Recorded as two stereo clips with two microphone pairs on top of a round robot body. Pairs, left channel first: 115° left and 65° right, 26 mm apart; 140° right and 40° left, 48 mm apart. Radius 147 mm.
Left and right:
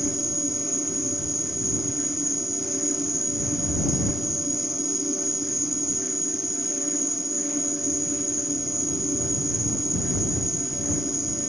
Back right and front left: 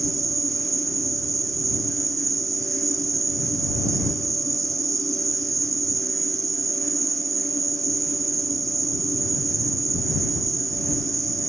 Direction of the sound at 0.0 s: 20° left.